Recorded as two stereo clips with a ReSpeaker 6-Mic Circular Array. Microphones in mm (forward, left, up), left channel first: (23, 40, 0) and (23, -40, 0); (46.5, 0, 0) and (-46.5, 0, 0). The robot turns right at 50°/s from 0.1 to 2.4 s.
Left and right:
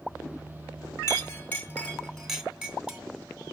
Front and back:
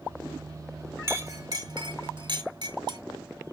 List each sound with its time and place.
1.1 s a clink: 125° left, 1.4 m; by 3.0 s 170° right, 1.4 m